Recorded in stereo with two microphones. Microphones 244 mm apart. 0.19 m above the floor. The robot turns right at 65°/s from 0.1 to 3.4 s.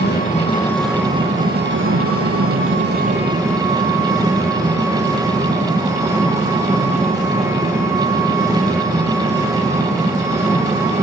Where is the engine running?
135° left, 5.5 m; by 11.0 s 10° right, 5.5 m.